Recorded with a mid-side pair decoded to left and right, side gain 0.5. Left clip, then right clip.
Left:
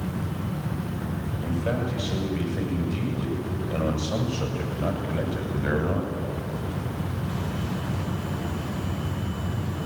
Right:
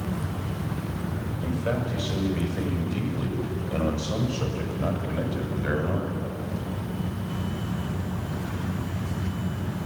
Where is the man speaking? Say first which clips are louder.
Even; 5° right, 8.5 m; by 6.2 s 5° left, 6.5 m.